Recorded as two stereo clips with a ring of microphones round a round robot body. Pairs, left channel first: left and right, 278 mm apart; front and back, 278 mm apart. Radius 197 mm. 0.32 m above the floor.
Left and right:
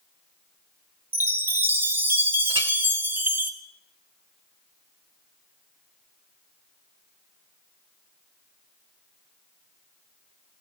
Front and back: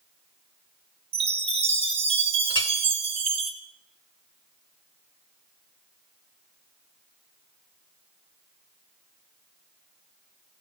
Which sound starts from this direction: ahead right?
A clink, at 2.5 s.